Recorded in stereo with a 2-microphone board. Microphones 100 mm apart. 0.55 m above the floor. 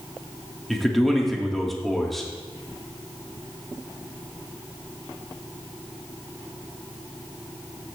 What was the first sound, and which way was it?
A man speaking, centre (ahead or behind).